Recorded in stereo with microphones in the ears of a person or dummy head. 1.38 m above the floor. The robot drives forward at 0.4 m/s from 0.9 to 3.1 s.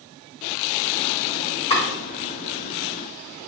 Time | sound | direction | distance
1.7 | chopping | 20° left (ahead or behind) | 1.5 m